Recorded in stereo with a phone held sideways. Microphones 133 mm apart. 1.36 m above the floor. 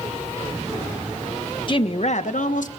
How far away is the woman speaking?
About 1.2 m.